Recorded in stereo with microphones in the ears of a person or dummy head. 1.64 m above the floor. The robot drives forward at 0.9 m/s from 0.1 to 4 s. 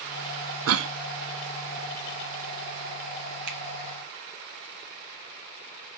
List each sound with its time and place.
0.7 s a cough: 75° right (ahead or behind), 0.5 m; by 0.9 s 65° right (ahead or behind), 0.5 m
3.5 s a finger snap: 65° right (ahead or behind), 1.2 m; by 3.6 s 60° right (ahead or behind), 1.2 m